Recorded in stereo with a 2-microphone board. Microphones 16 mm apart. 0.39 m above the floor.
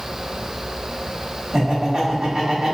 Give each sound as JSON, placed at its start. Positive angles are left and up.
{"t": 1.5, "sound": "laughter", "side_deg": -50, "distance_m": 1.9}